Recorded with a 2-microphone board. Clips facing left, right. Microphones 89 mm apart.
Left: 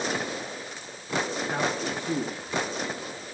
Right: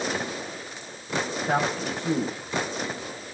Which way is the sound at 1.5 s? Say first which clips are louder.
Right 3 dB; 75° right (ahead or behind).